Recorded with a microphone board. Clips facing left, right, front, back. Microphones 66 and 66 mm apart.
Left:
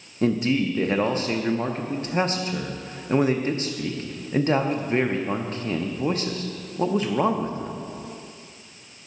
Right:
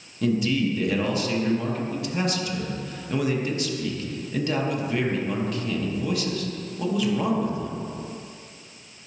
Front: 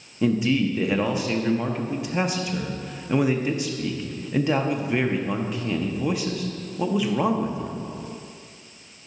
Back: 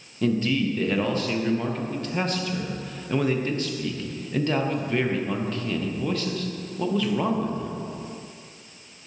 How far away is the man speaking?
About 0.5 m.